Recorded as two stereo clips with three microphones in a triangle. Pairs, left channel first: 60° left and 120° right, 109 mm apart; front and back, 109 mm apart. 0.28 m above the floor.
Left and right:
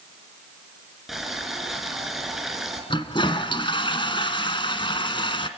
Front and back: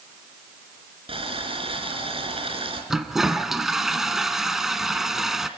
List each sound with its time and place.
1.1 s boiling: 150° left, 4.5 m
2.9 s a toilet flushing: 95° left, 1.5 m